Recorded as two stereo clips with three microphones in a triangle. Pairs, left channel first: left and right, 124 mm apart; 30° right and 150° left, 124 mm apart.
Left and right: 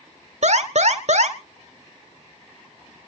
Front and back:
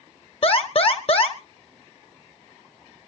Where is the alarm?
70° right, 1.7 m.